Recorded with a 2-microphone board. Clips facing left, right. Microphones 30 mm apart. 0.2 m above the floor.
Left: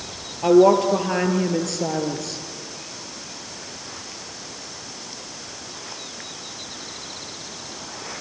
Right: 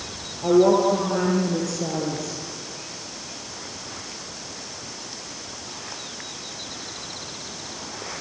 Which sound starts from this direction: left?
A woman speaking, at 0.4 s.